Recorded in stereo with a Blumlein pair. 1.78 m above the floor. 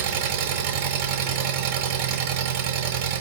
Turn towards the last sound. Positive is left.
turn(degrees=-50)